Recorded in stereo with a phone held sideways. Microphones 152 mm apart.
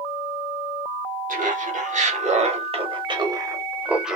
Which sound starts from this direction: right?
Laughter, at 1.3 s.